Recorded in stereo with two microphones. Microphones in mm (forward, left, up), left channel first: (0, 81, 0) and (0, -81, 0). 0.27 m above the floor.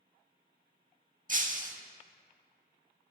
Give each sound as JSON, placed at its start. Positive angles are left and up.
{"t": 1.3, "sound": "breaking glass", "side_deg": -55, "distance_m": 0.6}